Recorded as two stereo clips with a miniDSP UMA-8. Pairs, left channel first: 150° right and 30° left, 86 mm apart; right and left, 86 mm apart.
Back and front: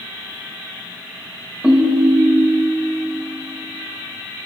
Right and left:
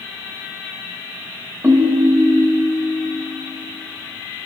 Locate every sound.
1.6 s a ringtone: 100° left, 0.7 m